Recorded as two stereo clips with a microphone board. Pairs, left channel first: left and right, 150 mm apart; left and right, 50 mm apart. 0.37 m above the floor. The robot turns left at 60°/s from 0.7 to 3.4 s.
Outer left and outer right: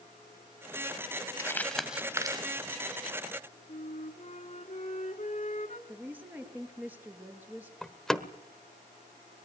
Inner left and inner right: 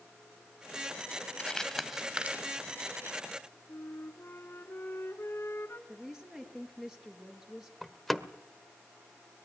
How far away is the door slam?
About 1.1 m.